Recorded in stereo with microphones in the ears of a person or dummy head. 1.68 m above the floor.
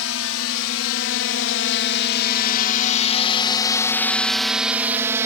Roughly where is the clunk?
I don't hear a clunk.